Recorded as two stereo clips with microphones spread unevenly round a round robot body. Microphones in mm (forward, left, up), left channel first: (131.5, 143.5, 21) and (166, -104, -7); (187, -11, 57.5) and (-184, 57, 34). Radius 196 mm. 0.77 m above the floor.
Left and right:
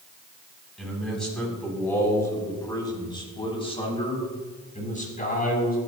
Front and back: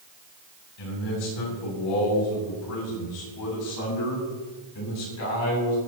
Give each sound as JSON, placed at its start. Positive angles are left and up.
{"t": 0.8, "sound": "a man speaking", "azimuth_deg": 5, "distance_m": 6.5}